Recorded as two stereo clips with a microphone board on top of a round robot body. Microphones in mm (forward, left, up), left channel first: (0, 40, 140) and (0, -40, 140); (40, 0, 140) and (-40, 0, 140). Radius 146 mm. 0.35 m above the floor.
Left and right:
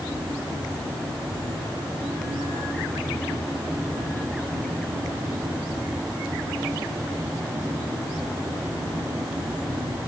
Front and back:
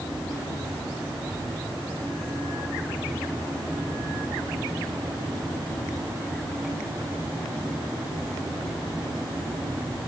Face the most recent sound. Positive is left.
No sound to turn to.